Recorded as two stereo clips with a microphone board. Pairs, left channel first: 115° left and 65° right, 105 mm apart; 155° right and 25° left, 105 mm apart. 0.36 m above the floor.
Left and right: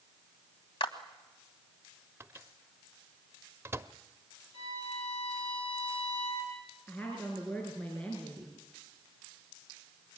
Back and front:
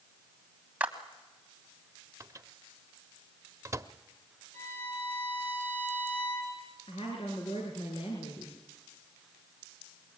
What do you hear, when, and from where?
0.8 s a clap: 95° left, 1.7 m
2.2 s a microwave: 15° right, 0.7 m
4.5 s a violin: 135° left, 4.5 m
6.9 s a woman speaking: 170° right, 4.5 m